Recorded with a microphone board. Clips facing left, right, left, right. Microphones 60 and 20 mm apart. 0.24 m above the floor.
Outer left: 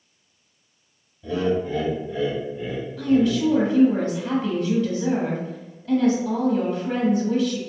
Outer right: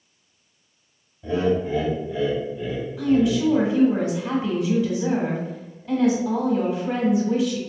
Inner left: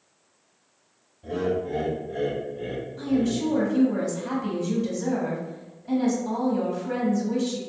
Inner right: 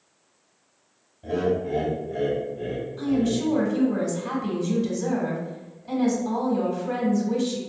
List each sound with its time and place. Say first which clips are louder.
1.2 s laughter: outer right 1 dB, inner right 2 dB; 30° right (ahead or behind), 1.1 m; by 3.5 s 20° left (ahead or behind), 1.9 m
3.0 s a woman speaking: even, inner right 1 dB; 10° right (ahead or behind), 1.2 m